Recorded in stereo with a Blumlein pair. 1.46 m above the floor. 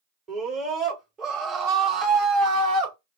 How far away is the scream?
About 3 m.